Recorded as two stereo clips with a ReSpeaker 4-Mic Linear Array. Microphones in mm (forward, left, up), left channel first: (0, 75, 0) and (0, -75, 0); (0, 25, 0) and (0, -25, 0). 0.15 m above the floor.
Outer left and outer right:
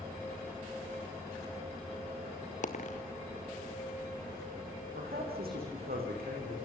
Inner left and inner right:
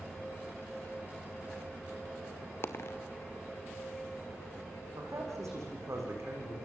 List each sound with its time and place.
2.6 s a dropped coin: 55° left (ahead or behind), 1.7 m
5.0 s a man speaking: 80° right, 7.5 m